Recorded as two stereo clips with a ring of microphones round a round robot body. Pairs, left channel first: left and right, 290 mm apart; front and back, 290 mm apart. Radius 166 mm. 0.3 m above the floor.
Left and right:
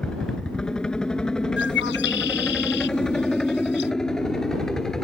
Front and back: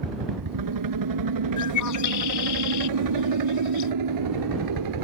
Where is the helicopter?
175° left; by 5.0 s straight behind.